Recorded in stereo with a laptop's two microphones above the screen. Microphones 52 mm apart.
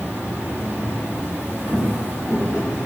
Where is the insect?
35° right (ahead or behind), 0.8 m.